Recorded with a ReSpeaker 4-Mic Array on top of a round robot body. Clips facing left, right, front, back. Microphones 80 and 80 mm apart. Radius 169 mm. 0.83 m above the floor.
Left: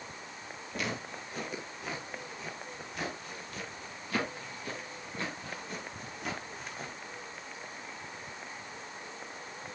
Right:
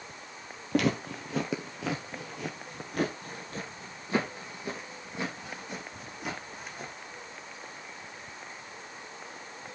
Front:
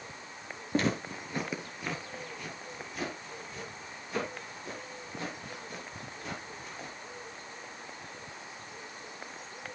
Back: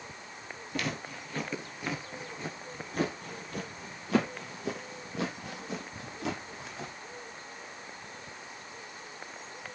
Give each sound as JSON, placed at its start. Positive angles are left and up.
{"t": 0.7, "sound": "footsteps", "azimuth_deg": -60, "distance_m": 1.4}